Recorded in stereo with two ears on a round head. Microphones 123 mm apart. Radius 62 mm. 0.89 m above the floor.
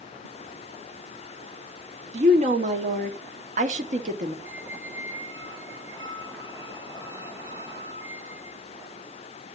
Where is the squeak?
20° right (ahead or behind), 3 m.